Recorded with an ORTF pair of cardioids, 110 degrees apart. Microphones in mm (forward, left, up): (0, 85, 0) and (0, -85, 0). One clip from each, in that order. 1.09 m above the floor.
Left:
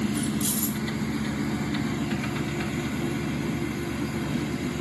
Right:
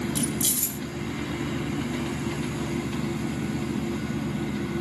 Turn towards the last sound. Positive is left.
turn(degrees=-30)